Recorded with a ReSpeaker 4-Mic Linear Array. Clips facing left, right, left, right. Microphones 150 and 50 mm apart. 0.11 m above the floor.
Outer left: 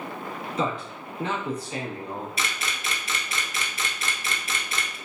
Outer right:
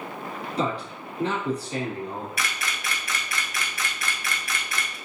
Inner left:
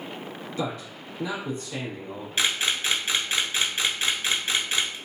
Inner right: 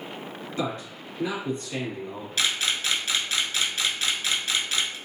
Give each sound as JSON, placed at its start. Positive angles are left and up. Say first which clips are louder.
{"t": 0.6, "sound": "a man speaking", "louder": "outer right 1 dB, inner right 1 dB", "side_deg": -35, "distance_m": 1.7}
{"t": 2.4, "sound": "a camera shutter", "louder": "even, inner left 1 dB", "side_deg": 25, "distance_m": 0.6}